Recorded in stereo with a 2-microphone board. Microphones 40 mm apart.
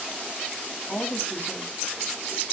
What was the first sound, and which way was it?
A woman speaking, 55° left (ahead or behind).